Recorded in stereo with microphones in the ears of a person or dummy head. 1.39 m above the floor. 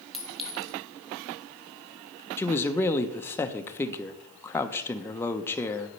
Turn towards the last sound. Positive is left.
turn(degrees=15)  # may be behind; listen again after turning